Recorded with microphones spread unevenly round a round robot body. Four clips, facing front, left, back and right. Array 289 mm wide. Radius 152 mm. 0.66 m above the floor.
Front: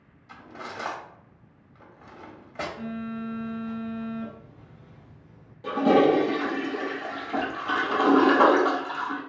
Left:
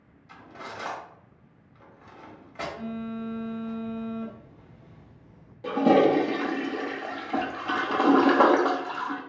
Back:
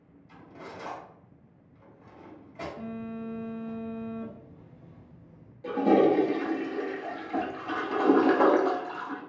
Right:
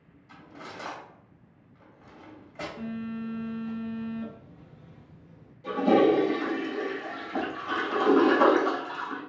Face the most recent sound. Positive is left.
turn(degrees=70)